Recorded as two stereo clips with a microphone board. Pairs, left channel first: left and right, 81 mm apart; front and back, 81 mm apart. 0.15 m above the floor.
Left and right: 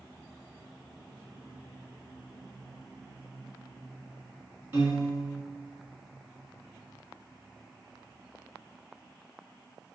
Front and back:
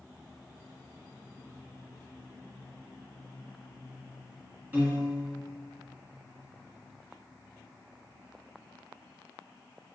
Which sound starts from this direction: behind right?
A piano, at 4.7 s.